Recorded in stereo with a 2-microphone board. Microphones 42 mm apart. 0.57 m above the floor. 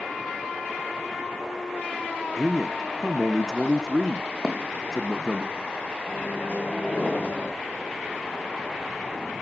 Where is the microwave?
45° left (ahead or behind), 3 m.